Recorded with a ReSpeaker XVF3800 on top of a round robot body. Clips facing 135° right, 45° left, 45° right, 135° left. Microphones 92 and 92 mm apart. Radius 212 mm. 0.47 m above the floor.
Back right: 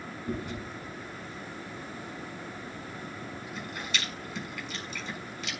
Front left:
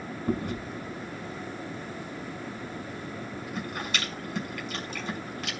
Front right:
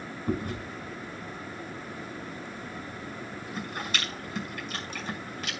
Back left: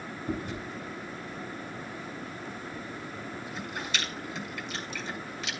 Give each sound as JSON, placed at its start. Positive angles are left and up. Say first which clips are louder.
{"t": 0.3, "sound": "chewing", "louder": "front left 5 dB, front right 3 dB", "azimuth_deg": 0, "distance_m": 5.5}